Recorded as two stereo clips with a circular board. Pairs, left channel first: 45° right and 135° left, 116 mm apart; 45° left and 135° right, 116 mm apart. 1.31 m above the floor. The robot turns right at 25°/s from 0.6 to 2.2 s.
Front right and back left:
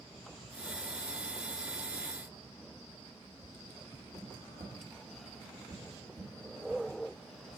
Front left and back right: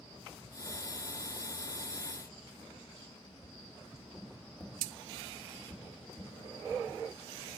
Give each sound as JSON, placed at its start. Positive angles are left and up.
{"t": 3.4, "sound": "tapping", "azimuth_deg": 150, "distance_m": 2.0}